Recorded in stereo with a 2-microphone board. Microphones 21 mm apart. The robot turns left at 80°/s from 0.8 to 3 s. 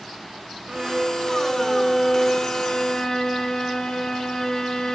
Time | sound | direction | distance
0.7 | a violin | 135° right | 1.5 m